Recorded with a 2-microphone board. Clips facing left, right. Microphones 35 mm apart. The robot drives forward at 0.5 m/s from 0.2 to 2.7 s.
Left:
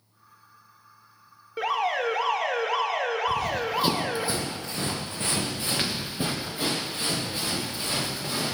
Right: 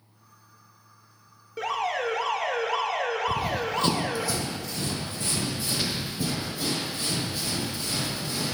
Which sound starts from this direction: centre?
An alarm, at 1.6 s.